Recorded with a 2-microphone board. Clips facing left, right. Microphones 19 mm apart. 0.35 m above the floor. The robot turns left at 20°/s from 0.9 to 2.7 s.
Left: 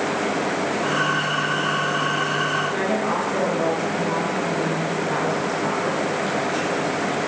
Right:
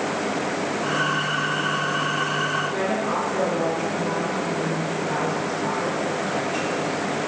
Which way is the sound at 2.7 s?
10° left (ahead or behind).